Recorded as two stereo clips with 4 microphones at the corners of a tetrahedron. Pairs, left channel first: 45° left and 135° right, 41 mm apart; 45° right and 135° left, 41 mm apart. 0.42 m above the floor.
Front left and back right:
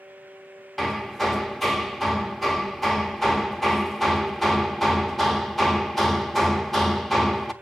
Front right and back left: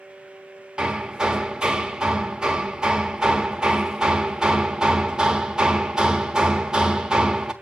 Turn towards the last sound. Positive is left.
turn(degrees=115)